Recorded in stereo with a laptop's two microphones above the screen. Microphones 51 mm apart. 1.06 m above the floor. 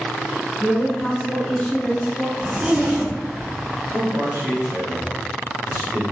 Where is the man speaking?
70° right (ahead or behind), 1.5 m.